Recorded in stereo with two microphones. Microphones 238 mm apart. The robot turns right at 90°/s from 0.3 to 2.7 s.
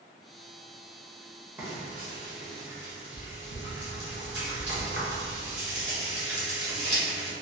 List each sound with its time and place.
1.6 s frying: 10° right (ahead or behind), 1.0 m; by 7.3 s 50° right (ahead or behind), 1.0 m